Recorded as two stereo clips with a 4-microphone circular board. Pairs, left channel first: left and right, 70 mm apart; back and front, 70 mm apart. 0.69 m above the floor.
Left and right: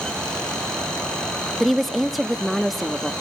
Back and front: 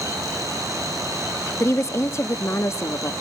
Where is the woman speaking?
Straight behind, 0.8 m.